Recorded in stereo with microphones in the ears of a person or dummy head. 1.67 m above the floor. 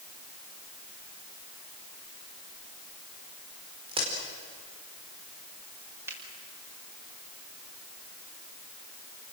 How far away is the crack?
About 5 m.